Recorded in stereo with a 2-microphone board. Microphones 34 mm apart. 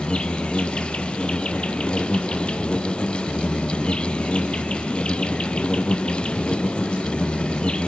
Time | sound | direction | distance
0.0 | an insect | 35° left (ahead or behind) | 1.4 m